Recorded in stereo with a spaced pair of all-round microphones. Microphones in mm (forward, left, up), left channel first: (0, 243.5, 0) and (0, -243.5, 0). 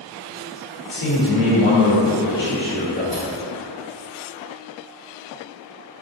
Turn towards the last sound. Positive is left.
turn(degrees=0)  # may be behind; listen again after turning